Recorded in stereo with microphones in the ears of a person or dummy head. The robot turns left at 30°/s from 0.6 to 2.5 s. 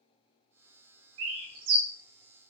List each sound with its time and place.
1.2 s a bird: 70° right (ahead or behind), 0.6 m; by 1.9 s 85° right, 0.6 m